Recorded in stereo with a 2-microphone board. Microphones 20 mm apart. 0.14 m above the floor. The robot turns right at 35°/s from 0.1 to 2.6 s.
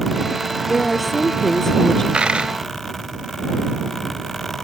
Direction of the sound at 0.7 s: 10° right.